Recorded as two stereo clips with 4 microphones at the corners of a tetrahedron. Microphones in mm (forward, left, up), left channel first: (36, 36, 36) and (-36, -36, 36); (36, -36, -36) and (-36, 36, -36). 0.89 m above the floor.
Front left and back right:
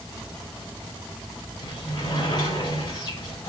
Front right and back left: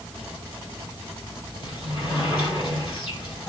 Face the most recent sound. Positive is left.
turn(degrees=0)